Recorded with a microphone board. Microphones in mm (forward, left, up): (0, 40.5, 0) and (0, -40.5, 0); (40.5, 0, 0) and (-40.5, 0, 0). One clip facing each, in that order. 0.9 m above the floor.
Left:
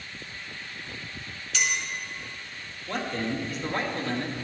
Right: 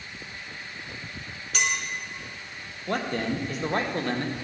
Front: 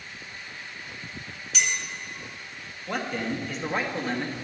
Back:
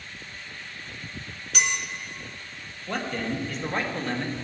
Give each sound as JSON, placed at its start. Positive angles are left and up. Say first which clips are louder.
{"t": 1.5, "sound": "a clink", "louder": "right 1 dB, back 2 dB", "azimuth_deg": -140, "distance_m": 1.7}
{"t": 2.9, "sound": "a man speaking", "louder": "right 2 dB, even", "azimuth_deg": -85, "distance_m": 1.2}